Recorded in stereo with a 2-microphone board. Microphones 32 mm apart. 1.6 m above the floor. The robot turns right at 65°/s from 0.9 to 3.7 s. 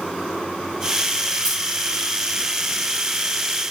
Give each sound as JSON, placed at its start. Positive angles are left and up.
{"t": 1.4, "sound": "keys jangling", "side_deg": 15, "distance_m": 1.5}